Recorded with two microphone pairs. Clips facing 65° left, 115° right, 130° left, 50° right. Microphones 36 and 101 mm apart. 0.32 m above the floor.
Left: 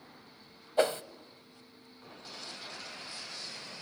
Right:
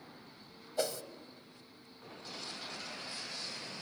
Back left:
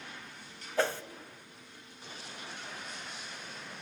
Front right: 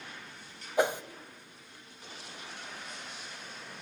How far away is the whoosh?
About 0.6 m.